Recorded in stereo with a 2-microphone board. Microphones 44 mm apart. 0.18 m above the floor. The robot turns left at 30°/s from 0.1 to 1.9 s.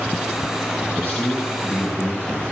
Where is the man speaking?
10° left (ahead or behind), 2.5 m; by 2.4 s 35° left (ahead or behind), 2.5 m.